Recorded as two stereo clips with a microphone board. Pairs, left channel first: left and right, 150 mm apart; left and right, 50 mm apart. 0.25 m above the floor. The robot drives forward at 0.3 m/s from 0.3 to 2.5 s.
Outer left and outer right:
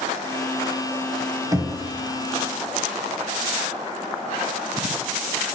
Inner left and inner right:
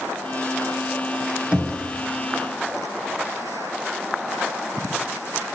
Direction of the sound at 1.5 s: 25° right (ahead or behind).